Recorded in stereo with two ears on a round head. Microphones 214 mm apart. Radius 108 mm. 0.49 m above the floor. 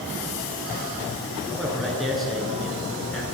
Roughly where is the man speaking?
Centre.